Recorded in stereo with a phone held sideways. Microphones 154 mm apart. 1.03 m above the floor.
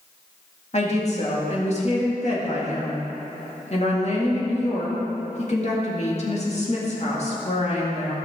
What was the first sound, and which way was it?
A woman speaking, 45° left (ahead or behind).